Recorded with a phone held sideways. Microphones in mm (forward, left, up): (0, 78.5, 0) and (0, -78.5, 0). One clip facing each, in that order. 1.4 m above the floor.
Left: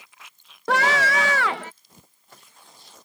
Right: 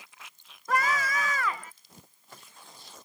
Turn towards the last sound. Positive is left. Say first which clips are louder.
# left 6 dB
turn(degrees=85)